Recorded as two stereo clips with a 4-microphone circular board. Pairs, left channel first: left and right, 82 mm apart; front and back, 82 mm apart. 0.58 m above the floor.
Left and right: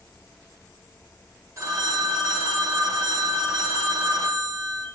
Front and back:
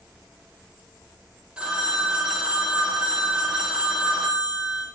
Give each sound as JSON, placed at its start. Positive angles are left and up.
{"t": 1.6, "sound": "a phone ringing", "azimuth_deg": -110, "distance_m": 0.6}